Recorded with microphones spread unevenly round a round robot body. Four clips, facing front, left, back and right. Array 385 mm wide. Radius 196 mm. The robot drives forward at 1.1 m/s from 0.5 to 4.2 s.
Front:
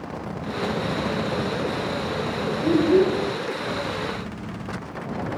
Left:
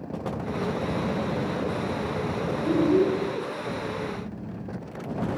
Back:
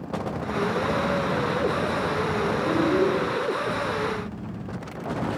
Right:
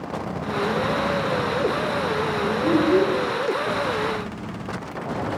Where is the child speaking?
55° right, 7.5 m; by 3.2 s 60° right, 7.5 m.